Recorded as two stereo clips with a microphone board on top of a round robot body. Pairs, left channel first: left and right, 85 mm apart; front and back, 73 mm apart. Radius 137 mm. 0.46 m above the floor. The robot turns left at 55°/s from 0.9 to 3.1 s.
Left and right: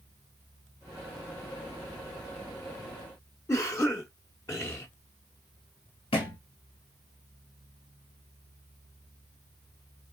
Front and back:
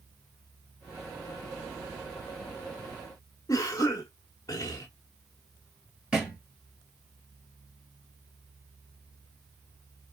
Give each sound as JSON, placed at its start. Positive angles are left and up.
{"t": 3.5, "sound": "a cough", "azimuth_deg": 35, "distance_m": 1.3}
{"t": 6.1, "sound": "a thud", "azimuth_deg": 105, "distance_m": 2.5}